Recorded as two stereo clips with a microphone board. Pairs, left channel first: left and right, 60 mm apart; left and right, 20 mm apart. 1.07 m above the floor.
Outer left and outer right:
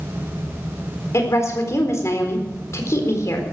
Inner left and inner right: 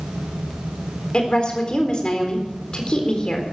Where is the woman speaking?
50° left (ahead or behind), 4 m.